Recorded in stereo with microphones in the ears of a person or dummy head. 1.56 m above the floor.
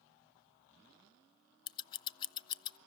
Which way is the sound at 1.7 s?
25° left (ahead or behind).